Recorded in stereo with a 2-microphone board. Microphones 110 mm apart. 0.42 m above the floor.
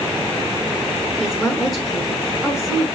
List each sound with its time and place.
1.2 s a woman speaking: centre (ahead or behind), 5.5 m